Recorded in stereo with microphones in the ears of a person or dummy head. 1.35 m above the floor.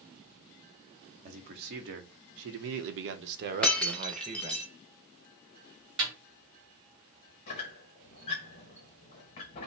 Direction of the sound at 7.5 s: 25° left (ahead or behind).